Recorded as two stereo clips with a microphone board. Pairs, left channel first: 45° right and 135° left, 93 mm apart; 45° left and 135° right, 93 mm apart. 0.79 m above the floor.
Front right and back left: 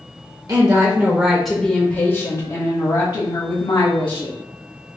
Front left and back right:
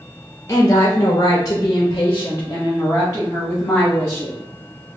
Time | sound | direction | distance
0.5 | a woman speaking | 95° left | 0.8 m